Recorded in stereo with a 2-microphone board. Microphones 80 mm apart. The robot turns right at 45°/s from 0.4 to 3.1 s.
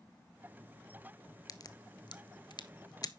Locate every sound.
1.5 s a crack: 50° left (ahead or behind), 0.6 m; by 3.1 s 55° left (ahead or behind), 0.6 m